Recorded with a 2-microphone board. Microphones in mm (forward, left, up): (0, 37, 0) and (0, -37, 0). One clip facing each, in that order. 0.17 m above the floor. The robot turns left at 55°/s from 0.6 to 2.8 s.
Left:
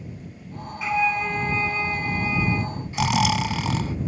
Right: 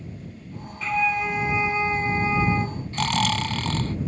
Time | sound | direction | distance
0.8 | a flute | 15° left | ?
2.9 | snoring | 10° left (ahead or behind) | ?